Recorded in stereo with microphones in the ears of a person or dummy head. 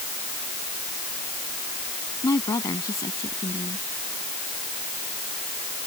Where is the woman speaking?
25° left (ahead or behind).